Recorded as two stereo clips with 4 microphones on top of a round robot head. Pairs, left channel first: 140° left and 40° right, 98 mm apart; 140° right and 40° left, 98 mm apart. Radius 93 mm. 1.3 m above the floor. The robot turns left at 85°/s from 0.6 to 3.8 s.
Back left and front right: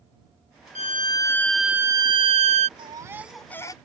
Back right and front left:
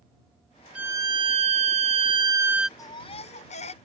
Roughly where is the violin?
Behind left.